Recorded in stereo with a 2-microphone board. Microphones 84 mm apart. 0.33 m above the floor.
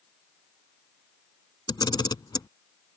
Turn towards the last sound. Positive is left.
turn(degrees=55)  # may be behind; listen again after turning